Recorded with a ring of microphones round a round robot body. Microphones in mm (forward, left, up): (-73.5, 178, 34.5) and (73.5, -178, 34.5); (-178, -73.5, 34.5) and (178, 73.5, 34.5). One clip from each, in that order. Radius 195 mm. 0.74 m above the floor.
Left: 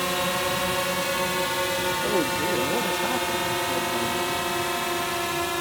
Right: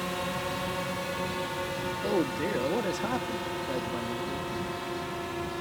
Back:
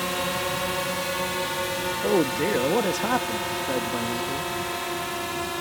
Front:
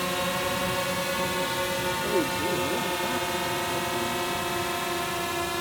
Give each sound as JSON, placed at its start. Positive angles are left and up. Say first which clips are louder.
{"t": 0.0, "sound": "a drone", "louder": "left 7 dB, back 1 dB", "azimuth_deg": 125}
{"t": 2.0, "sound": "a man speaking", "louder": "left 5 dB, back 7 dB", "azimuth_deg": -160}